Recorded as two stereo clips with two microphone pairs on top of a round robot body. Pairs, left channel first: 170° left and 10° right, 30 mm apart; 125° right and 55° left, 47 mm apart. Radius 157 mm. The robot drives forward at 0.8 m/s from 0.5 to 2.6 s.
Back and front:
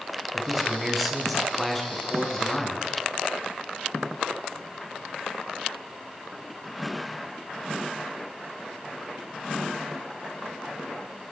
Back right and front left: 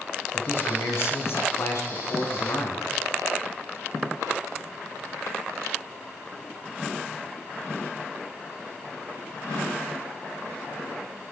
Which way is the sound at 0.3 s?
90° right.